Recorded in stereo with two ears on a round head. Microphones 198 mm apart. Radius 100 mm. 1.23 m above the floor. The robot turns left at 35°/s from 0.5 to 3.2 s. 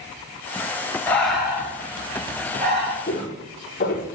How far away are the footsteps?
About 5 m.